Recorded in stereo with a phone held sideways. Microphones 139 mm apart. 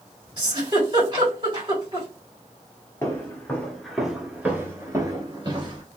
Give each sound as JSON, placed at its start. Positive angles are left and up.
{"t": 0.4, "sound": "a giggle", "side_deg": -35, "distance_m": 2.0}
{"t": 3.0, "sound": "footsteps", "side_deg": 25, "distance_m": 1.2}